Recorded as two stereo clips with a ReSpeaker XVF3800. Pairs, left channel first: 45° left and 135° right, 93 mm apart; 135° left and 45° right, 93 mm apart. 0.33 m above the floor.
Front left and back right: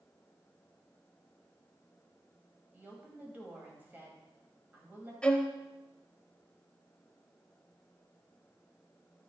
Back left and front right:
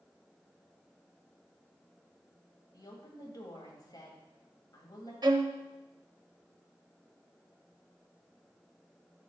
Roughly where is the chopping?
No chopping in this recording.